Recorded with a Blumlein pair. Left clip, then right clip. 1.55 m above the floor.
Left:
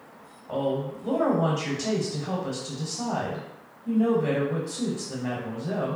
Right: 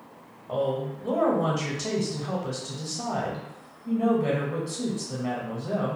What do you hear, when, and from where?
0.5 s a woman speaking: straight ahead, 0.7 m